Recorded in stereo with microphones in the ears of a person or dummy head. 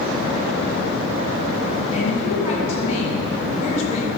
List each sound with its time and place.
1.9 s a woman speaking: 40° left (ahead or behind), 4 m